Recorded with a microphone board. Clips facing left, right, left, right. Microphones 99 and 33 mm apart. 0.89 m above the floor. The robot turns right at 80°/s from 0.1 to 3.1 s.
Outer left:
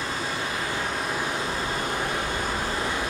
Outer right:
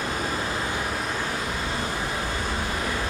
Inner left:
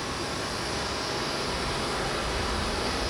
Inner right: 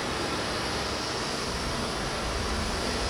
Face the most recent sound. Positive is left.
turn(degrees=165)